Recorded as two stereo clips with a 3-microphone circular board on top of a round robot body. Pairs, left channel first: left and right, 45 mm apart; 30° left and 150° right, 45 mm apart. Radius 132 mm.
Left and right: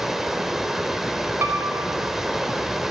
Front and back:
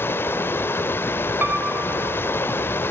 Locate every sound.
0.0 s running water: 5° right, 2 m
1.4 s a piano: 110° right, 3.5 m